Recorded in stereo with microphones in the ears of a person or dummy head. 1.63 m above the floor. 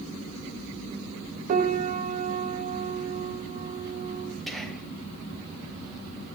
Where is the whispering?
Centre (ahead or behind), 1.4 m.